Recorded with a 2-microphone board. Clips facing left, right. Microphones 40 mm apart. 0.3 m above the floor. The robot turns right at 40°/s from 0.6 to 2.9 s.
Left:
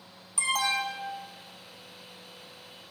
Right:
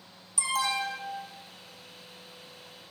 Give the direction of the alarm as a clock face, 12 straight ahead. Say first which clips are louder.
Left 1 dB; 9 o'clock.